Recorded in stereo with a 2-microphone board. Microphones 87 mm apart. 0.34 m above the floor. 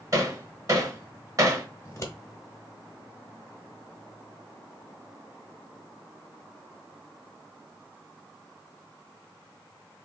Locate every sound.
0.1 s hammering: 40° right (ahead or behind), 0.8 m
1.9 s scissors: 35° left (ahead or behind), 1.0 m